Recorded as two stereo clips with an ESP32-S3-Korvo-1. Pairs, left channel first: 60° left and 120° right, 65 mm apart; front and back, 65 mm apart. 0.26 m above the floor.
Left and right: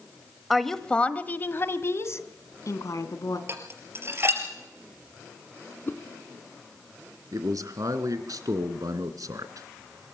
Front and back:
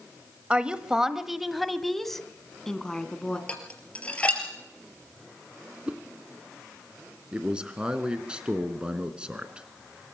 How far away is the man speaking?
About 2.5 m.